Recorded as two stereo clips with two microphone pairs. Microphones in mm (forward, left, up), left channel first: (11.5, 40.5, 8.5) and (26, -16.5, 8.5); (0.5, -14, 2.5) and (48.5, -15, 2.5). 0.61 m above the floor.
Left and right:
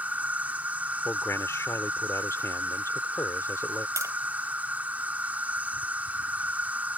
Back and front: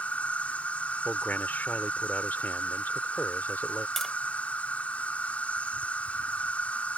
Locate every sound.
0.0 s an insect: 130° right
1.1 s a man speaking: 130° left
4.0 s tapping: 100° right